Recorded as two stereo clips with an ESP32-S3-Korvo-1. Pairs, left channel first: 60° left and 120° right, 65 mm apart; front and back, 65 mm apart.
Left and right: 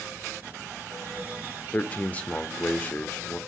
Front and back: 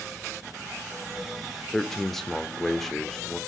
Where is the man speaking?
75° left, 0.7 m.